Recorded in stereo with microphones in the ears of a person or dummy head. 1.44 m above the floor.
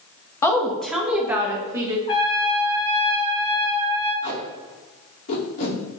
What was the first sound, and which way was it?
A woman speaking, 20° left (ahead or behind).